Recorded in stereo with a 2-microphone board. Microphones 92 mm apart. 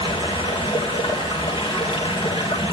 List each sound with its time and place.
0.0 s running water: 70° left (ahead or behind), 4.5 m